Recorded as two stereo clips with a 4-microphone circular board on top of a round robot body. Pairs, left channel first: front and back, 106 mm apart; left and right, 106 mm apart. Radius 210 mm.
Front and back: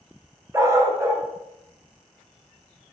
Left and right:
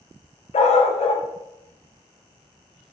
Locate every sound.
0.5 s a dog barking: 115° left, 0.5 m